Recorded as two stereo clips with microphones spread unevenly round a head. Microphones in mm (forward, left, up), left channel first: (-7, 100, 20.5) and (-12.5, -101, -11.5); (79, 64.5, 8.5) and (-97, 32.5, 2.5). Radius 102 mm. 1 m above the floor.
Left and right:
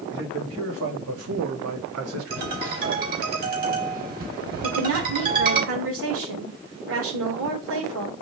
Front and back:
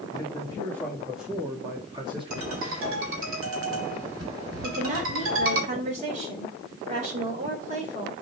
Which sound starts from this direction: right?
A woman speaking, at 4.6 s.